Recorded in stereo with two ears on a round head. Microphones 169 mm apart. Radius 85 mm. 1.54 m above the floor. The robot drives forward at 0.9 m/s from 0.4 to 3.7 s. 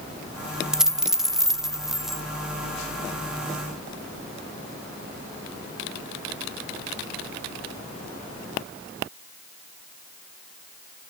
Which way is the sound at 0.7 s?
5° right (ahead or behind).